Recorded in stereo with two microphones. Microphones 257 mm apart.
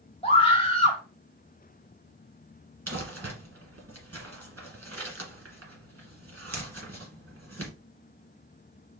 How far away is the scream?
About 1.0 m.